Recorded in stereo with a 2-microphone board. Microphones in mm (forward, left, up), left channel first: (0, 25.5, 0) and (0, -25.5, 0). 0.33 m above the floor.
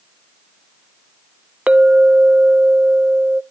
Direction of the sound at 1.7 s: 30° right (ahead or behind).